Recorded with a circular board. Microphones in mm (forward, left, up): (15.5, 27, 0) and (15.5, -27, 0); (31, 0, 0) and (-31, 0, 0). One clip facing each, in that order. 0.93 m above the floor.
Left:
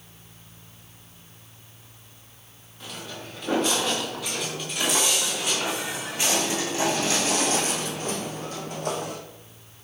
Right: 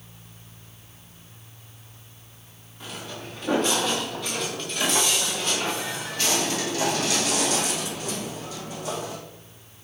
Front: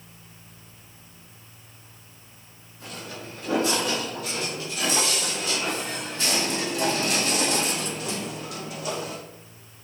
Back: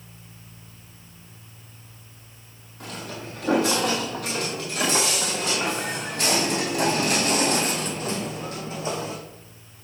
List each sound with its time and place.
2.8 s footsteps: 175° right, 5.5 m; by 9.2 s 120° left, 3 m